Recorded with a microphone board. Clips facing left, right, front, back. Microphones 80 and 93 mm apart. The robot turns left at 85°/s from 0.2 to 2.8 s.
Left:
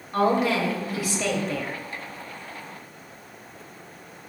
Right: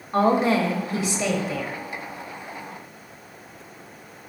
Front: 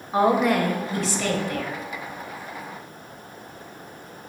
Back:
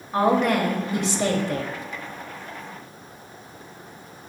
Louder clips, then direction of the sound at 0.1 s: Right 2 dB, even; 60° right.